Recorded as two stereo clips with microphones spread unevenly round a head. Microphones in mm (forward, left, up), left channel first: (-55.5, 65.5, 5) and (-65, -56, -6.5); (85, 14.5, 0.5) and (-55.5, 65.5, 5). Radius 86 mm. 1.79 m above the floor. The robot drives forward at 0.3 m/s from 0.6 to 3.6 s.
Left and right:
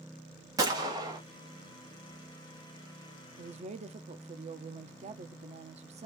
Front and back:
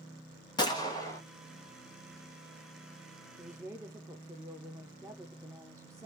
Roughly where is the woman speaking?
Behind right.